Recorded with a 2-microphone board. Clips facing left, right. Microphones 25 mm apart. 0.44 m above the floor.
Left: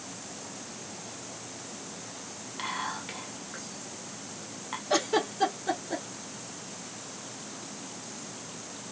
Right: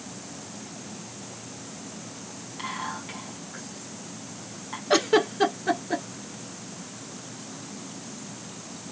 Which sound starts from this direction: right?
A giggle, at 4.9 s.